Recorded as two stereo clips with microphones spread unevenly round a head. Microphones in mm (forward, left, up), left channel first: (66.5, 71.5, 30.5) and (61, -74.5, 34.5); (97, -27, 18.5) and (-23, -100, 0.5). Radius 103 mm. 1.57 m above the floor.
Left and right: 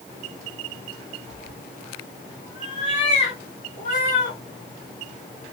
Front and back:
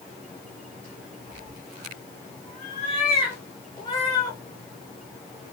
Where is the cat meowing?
30° left, 2.5 m; by 4.4 s 85° left, 2 m.